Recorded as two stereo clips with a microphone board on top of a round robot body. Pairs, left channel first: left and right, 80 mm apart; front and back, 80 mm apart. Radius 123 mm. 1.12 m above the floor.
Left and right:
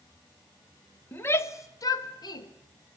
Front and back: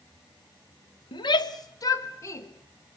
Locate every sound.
1.1 s a shout: 25° left, 1.1 m; by 2.5 s 55° left, 2 m